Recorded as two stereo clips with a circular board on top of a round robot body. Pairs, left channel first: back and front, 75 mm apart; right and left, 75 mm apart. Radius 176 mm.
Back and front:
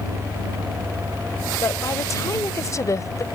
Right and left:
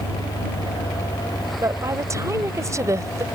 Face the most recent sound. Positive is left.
turn(degrees=135)